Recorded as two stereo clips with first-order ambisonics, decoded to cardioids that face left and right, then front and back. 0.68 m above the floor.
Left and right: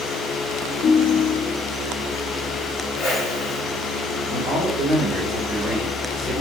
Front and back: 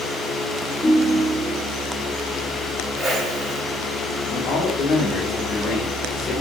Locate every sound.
0.8 s a ringtone: 70° left, 0.7 m
3.0 s a whoosh: 115° left, 1.4 m
4.3 s a man speaking: 5° left, 1.5 m